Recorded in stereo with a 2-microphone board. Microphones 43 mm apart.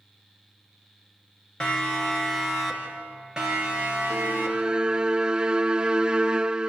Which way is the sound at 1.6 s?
20° left (ahead or behind).